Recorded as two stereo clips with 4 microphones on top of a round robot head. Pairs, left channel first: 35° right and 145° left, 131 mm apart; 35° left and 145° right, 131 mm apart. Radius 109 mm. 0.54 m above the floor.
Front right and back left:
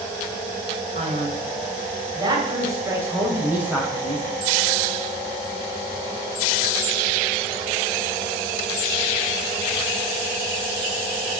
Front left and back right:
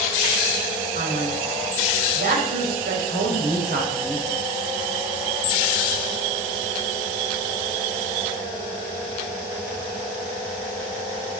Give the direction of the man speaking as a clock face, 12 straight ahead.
6 o'clock.